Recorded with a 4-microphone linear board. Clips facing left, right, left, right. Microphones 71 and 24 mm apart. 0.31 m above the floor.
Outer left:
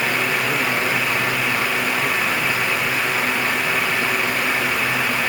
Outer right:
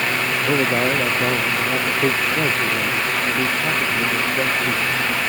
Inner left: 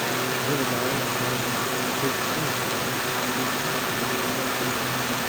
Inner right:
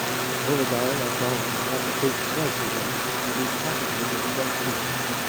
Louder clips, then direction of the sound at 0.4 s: Outer right 2 dB, inner right 2 dB; 35° right (ahead or behind).